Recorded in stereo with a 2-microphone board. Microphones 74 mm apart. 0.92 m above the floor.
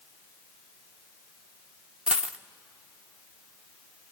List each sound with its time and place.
2.1 s a dropped coin: 15° right (ahead or behind), 0.5 m